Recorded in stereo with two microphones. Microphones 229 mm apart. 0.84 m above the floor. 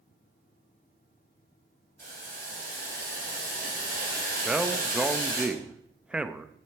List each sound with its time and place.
2.0 s boiling: 55° right (ahead or behind), 8 m
4.5 s a man speaking: 5° right (ahead or behind), 0.7 m